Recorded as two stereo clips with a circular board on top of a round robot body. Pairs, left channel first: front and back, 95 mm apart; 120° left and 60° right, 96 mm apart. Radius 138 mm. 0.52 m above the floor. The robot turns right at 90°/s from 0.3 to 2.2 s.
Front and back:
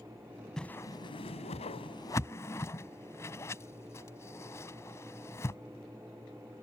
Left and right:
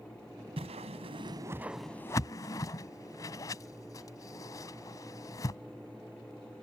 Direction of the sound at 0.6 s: 85° right.